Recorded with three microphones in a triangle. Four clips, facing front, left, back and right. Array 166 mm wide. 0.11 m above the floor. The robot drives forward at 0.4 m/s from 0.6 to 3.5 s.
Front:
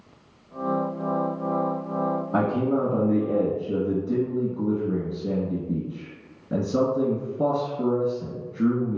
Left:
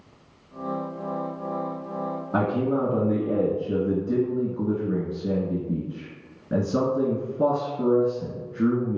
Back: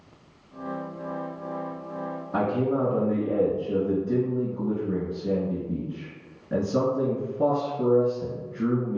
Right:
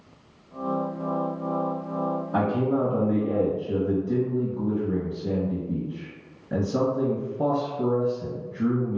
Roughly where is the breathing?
I don't hear breathing.